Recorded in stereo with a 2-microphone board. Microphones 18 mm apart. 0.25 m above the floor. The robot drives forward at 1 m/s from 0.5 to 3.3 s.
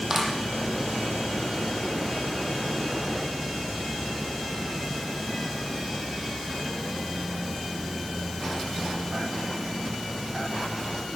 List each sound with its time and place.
0.1 s a clap: 25° right (ahead or behind), 7.5 m